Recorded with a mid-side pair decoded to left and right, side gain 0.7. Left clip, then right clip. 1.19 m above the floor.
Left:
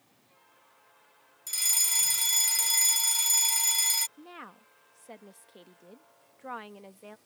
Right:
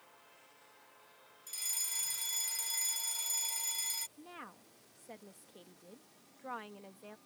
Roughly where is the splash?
I don't hear a splash.